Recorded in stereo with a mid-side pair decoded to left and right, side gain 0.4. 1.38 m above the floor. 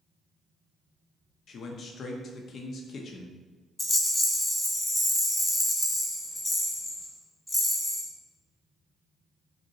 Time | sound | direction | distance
1.5 | a man speaking | 60° left | 0.6 m
3.8 | a rattle | 20° left | 1.1 m